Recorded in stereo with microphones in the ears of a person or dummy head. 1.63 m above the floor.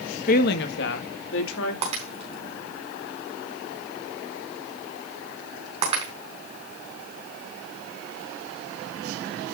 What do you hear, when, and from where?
0.3 s a woman speaking: 50° left (ahead or behind), 1.8 m; by 1.7 s 75° left (ahead or behind), 3.5 m
1.8 s breaking glass: 35° right (ahead or behind), 4.5 m